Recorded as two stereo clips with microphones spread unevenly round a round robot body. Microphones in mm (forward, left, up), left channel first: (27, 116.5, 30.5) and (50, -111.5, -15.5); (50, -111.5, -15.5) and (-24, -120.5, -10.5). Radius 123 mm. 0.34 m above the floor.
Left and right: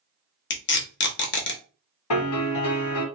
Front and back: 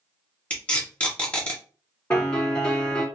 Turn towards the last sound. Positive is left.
turn(degrees=85)